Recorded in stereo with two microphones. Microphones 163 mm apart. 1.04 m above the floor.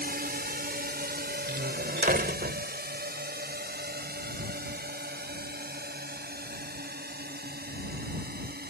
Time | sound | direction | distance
0.0 | a drone | 75° right (ahead or behind) | ?
1.5 | a door slam | 75° right (ahead or behind) | ?